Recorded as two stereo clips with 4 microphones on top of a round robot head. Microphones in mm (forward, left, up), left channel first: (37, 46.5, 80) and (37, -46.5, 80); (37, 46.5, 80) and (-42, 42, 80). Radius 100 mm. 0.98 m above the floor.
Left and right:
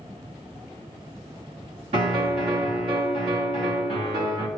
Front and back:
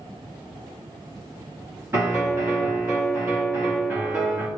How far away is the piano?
About 2.5 m.